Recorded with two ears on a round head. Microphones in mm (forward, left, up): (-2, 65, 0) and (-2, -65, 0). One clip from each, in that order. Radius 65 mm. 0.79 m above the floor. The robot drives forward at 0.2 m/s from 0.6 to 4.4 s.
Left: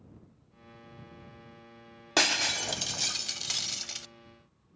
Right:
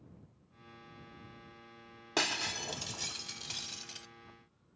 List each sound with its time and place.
2.2 s breaking glass: 25° left (ahead or behind), 0.9 m; by 4.1 s 35° left (ahead or behind), 0.7 m